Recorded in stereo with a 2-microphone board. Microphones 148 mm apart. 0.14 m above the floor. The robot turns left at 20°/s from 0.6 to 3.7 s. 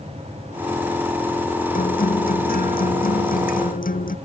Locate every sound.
1.7 s a guitar: 110° left; by 4.2 s 70° left